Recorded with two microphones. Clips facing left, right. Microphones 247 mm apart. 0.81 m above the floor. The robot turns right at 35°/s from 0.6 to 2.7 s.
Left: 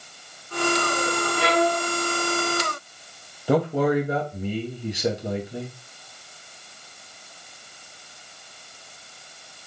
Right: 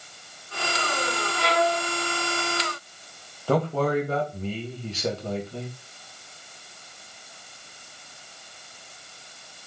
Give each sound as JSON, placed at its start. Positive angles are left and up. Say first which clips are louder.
{"t": 1.4, "sound": "a violin", "louder": "left 2 dB", "side_deg": 65, "distance_m": 1.0}
{"t": 3.5, "sound": "a man speaking", "louder": "left 3 dB", "side_deg": 15, "distance_m": 1.1}